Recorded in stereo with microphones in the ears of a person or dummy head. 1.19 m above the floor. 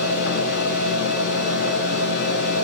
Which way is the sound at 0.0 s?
60° left (ahead or behind).